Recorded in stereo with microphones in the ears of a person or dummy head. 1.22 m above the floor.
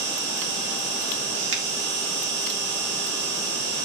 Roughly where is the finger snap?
Right.